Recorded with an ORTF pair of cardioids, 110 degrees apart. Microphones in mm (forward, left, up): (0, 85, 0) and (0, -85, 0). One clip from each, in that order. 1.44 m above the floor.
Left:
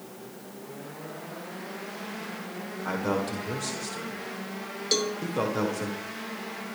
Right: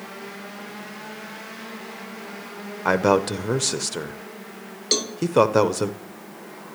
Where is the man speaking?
60° right, 0.9 m.